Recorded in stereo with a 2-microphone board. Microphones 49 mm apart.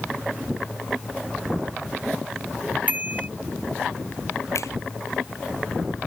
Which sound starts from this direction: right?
A bicycle bell, at 2.9 s.